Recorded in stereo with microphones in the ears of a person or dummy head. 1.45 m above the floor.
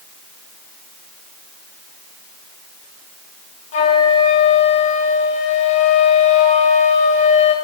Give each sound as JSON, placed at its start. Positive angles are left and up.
{"t": 3.7, "sound": "a flute", "side_deg": 35, "distance_m": 1.6}